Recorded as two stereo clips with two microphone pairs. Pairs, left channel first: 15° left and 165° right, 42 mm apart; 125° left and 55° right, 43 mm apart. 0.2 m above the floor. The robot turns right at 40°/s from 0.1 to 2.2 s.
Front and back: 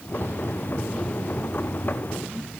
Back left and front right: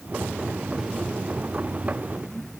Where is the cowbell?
I don't hear a cowbell.